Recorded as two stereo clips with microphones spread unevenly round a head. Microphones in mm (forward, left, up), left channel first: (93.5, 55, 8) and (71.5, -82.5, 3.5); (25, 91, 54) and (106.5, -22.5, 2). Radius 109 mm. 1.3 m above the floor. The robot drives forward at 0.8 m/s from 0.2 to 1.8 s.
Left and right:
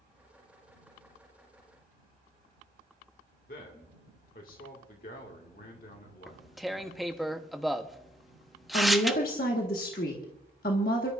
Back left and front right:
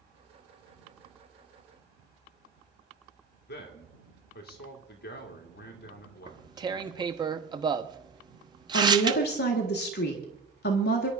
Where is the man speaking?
125° left, 2 m.